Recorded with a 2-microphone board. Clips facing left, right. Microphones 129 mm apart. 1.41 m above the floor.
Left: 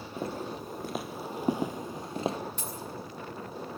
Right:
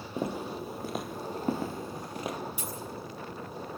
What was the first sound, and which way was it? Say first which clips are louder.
Footsteps: right 2 dB; 15° right (ahead or behind).